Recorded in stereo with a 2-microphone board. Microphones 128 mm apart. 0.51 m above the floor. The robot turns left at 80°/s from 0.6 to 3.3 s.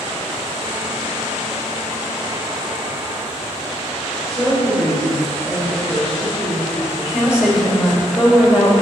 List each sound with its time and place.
4.3 s a woman speaking: 15° right (ahead or behind), 2.5 m
7.1 s a woman speaking: 10° right (ahead or behind), 1.9 m